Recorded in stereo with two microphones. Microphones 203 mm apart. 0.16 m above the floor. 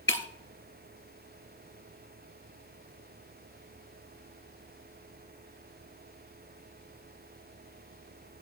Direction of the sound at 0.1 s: 70° left (ahead or behind).